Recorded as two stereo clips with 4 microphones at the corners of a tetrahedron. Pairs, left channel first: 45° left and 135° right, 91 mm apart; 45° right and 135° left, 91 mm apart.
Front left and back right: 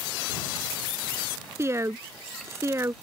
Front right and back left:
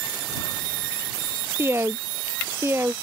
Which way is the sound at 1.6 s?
Straight behind.